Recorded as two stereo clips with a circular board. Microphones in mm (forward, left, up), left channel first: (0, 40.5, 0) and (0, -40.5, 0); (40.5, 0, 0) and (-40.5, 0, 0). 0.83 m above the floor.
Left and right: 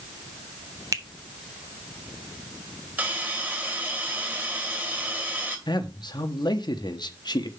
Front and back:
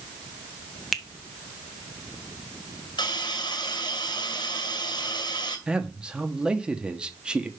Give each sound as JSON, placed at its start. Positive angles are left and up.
{"t": 0.9, "sound": "a finger snap", "azimuth_deg": -85, "distance_m": 1.0}
{"t": 3.0, "sound": "a hiss", "azimuth_deg": -25, "distance_m": 2.5}
{"t": 5.7, "sound": "a man speaking", "azimuth_deg": 100, "distance_m": 1.1}